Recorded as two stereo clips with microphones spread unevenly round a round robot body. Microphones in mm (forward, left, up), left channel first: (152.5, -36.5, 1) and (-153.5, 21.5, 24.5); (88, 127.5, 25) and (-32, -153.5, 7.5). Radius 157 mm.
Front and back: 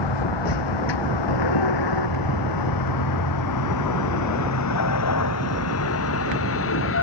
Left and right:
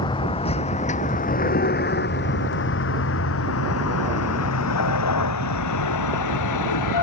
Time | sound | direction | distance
0.0 | a vehicle | 10° right | ?